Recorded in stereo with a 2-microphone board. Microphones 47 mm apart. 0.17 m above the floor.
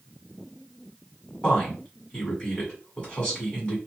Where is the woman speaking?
20° left (ahead or behind), 1.5 m.